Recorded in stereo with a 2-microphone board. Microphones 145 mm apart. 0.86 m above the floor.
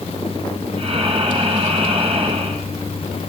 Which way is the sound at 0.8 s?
40° right (ahead or behind).